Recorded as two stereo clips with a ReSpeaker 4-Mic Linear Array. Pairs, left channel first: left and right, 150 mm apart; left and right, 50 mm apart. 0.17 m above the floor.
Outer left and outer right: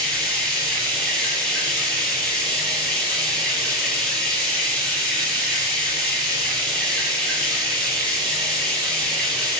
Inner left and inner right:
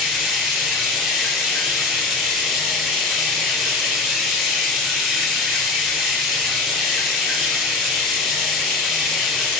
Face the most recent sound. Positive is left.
turn(degrees=5)  # may be behind; listen again after turning